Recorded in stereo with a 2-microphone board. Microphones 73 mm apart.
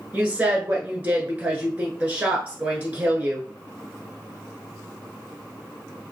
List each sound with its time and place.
0.1 s a woman speaking: 20° right (ahead or behind), 1.2 m